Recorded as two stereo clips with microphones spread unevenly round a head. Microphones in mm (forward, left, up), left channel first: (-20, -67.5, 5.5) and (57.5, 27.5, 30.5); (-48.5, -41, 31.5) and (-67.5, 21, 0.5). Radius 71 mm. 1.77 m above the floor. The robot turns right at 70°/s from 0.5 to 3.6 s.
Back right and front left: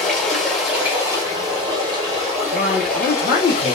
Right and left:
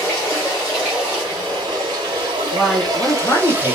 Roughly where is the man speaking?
Behind.